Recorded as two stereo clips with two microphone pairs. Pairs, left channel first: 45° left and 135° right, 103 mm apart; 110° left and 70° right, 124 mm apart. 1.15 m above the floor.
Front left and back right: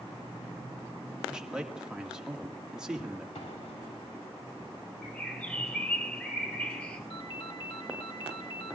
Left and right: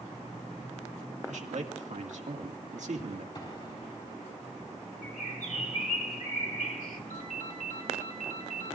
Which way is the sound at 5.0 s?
125° left.